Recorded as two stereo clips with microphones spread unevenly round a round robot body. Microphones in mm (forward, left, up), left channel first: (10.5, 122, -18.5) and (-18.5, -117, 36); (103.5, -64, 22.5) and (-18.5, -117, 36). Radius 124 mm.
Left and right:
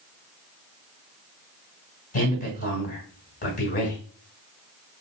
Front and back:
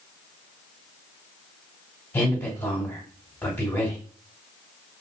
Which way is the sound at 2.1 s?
90° left.